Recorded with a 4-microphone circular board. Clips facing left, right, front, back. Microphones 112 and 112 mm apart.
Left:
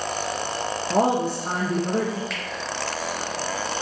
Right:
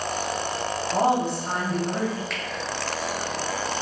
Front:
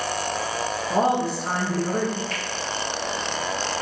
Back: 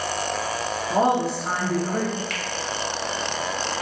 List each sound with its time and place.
0.9 s a woman speaking: 95° left, 0.5 m
2.3 s a finger snap: straight behind, 0.5 m